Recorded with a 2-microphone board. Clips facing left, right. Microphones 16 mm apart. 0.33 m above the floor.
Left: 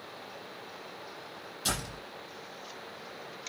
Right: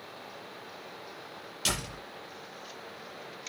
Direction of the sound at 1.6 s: 60° right (ahead or behind).